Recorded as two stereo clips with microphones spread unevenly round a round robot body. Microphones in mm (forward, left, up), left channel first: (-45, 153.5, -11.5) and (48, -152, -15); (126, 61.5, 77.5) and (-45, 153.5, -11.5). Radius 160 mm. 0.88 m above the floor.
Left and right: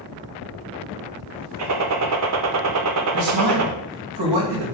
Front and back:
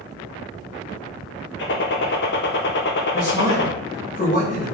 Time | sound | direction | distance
1.6 | a gunshot | 75° right | 1.3 m
3.1 | a man speaking | 95° right | 4 m